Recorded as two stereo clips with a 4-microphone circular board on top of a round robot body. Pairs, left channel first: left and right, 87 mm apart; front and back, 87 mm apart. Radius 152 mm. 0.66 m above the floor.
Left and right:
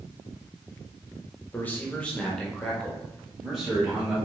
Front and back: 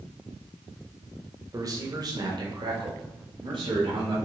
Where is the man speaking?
155° left, 1.5 m; by 4.2 s 170° right, 2.5 m.